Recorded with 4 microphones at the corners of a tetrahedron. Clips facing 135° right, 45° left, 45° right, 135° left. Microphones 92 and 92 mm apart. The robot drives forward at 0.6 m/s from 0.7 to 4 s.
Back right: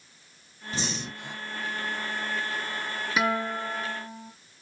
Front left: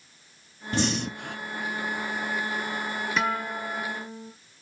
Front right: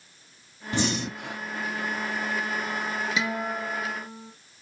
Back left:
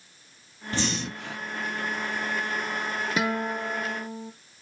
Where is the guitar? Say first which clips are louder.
Back right 3 dB, back left 2 dB; 140° left, 0.9 m; by 4.3 s 160° left, 1.3 m.